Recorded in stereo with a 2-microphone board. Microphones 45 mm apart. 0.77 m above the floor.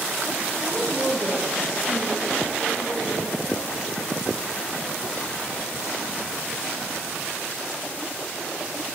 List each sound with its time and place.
0.6 s a woman speaking: centre (ahead or behind), 1.2 m; by 3.4 s 10° right (ahead or behind), 3.5 m